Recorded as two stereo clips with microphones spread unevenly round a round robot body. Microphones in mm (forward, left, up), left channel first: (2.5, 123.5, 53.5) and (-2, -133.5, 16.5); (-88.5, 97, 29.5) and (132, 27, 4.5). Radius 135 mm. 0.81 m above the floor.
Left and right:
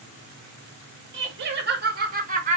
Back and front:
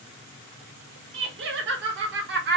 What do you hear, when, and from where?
1.1 s laughter: 55° right, 2 m; by 2.6 s 40° right, 1.5 m